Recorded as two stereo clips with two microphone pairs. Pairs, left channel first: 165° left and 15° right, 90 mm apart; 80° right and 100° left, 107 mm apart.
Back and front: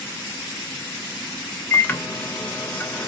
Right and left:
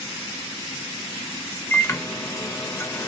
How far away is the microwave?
About 0.5 m.